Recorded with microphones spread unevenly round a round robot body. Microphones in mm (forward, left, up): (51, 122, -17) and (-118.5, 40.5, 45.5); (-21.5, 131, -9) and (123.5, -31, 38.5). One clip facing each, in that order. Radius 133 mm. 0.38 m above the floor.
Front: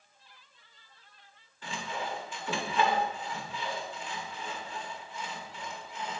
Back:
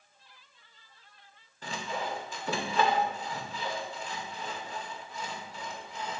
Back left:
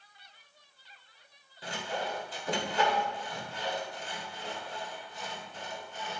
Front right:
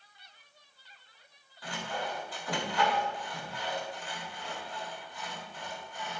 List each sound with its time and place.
1.6 s sawing: 155° left, 1.6 m